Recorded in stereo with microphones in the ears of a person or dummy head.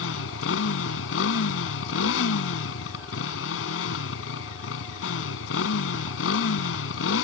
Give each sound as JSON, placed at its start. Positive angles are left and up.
{"t": 0.0, "sound": "a motorcycle", "side_deg": 75}